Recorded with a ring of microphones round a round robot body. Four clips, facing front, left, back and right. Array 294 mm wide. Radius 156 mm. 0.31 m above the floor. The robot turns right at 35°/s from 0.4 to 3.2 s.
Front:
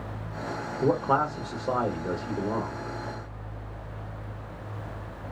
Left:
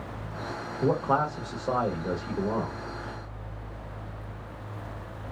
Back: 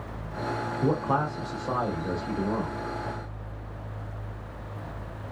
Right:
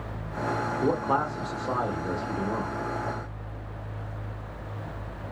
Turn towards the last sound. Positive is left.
turn(degrees=75)